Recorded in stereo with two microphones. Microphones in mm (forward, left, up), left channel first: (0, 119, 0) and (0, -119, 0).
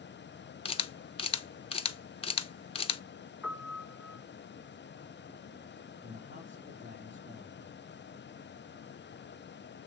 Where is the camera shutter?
25° left (ahead or behind), 0.6 m.